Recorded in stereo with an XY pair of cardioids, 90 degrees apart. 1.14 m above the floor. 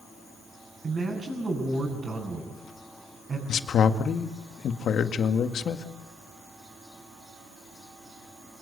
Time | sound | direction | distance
0.8 | a man speaking | 40° right | 7 m
3.5 | a man speaking | 65° left | 1.8 m